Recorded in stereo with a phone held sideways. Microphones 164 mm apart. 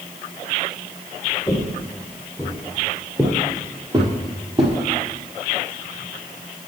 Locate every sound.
1.5 s footsteps: 20° left (ahead or behind), 1.4 m; by 4.7 s 40° right (ahead or behind), 1.7 m